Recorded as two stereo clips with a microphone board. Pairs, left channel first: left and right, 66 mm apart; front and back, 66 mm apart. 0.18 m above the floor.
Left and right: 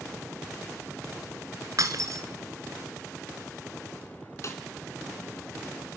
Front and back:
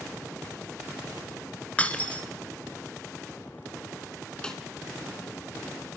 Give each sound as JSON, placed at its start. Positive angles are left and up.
{"t": 1.8, "sound": "breaking glass", "azimuth_deg": -65, "distance_m": 1.0}
{"t": 4.4, "sound": "a snare drum", "azimuth_deg": 75, "distance_m": 1.7}